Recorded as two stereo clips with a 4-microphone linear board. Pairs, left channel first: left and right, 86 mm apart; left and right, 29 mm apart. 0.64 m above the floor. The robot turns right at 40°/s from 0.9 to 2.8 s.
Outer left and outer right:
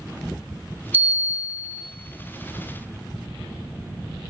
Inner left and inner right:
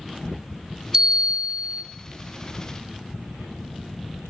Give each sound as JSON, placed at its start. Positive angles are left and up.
{"t": 0.9, "sound": "a bell", "azimuth_deg": -160, "distance_m": 0.5}